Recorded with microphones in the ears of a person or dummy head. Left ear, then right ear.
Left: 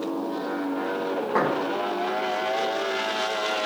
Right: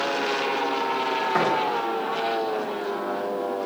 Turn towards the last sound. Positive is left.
turn(degrees=5)  # may be behind; listen again after turning